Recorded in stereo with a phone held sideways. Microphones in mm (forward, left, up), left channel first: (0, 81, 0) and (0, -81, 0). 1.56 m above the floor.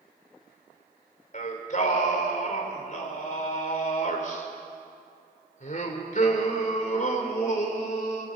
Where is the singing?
55° left (ahead or behind), 3 m.